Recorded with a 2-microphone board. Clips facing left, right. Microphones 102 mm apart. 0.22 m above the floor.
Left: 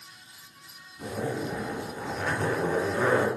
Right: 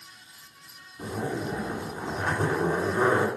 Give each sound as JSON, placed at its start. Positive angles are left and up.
{"t": 1.0, "sound": "a zipper", "side_deg": -30, "distance_m": 2.0}